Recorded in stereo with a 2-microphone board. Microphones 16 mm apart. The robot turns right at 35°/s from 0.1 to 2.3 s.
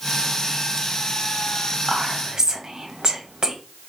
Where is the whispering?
30° right (ahead or behind), 1.2 m; by 3.5 s 35° right (ahead or behind), 1.2 m.